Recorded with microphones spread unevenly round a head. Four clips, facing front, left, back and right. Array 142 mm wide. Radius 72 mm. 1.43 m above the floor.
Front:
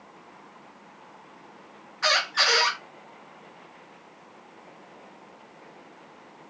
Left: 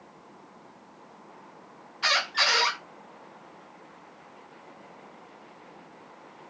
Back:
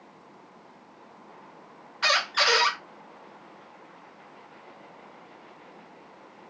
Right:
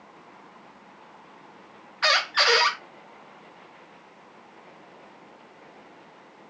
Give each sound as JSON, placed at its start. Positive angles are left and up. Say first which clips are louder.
{"t": 2.0, "sound": "a squeak", "louder": "right 4 dB, even", "azimuth_deg": -90, "distance_m": 0.8}